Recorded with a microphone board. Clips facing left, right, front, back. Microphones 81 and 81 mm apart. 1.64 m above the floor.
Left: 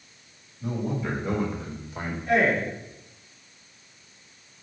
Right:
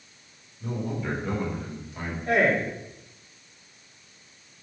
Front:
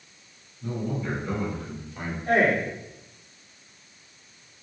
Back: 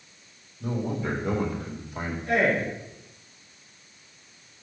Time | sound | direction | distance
0.6 | a man speaking | 175° left | 3.5 m
2.3 | a man speaking | 50° right | 4 m